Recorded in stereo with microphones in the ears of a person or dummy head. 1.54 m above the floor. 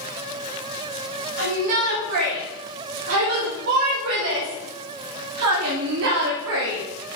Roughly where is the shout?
Right.